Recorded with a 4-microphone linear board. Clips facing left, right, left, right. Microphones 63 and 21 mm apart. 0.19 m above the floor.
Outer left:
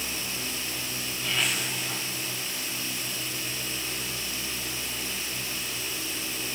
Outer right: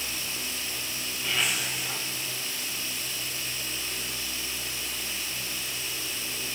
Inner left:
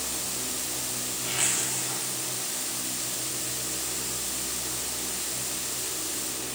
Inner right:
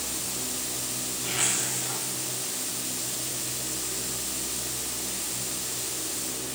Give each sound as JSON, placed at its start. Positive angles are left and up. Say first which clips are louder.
{"t": 1.2, "sound": "a zipper", "louder": "even, inner right 1 dB", "side_deg": 0, "distance_m": 7.5}